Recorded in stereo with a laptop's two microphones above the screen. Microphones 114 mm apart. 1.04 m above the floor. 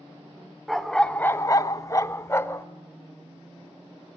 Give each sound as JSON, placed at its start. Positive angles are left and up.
{"t": 0.7, "sound": "a dog barking", "side_deg": 0, "distance_m": 1.1}